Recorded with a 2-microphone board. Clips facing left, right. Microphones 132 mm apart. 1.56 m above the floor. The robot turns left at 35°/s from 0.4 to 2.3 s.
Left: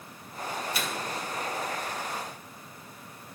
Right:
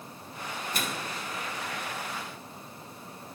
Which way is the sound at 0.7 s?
45° right (ahead or behind).